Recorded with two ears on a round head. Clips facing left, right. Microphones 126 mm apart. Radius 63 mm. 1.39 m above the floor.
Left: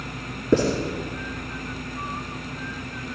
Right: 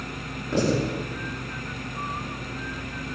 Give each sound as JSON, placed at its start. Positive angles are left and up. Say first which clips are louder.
{"t": 0.5, "sound": "writing", "louder": "left 4 dB", "side_deg": 60, "distance_m": 5.5}